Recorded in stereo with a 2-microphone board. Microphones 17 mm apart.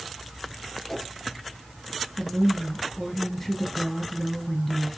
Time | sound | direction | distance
0.9 | a whoosh | 30° left (ahead or behind) | 2.5 m
2.2 | a woman speaking | 20° left (ahead or behind) | 2.5 m